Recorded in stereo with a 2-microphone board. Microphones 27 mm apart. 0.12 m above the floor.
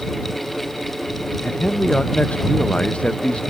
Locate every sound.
1.4 s a man speaking: 45° left (ahead or behind)